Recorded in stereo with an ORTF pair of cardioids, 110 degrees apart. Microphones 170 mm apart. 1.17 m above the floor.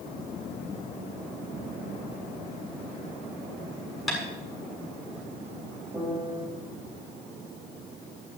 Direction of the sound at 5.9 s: 20° right.